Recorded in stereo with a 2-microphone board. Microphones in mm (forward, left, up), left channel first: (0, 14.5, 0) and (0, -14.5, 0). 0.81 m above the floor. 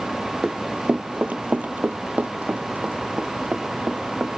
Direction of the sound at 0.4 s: 25° right (ahead or behind).